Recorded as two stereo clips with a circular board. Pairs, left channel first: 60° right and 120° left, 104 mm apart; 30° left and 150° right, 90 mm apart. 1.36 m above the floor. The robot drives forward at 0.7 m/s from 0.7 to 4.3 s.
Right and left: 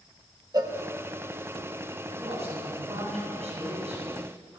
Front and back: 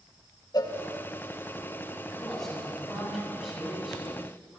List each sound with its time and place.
0.5 s a cowbell: 70° left, 1.7 m
2.1 s a man speaking: 115° left, 8.5 m; by 4.6 s 125° left, 9 m